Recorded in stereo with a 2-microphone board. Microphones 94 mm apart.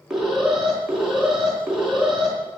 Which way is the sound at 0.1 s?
5° right (ahead or behind).